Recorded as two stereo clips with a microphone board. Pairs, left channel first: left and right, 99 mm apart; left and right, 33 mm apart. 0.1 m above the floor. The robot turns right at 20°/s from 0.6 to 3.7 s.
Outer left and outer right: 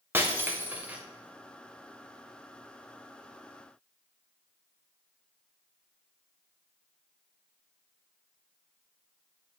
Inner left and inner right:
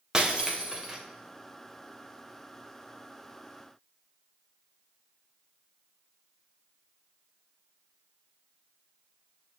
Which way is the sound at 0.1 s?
20° right (ahead or behind).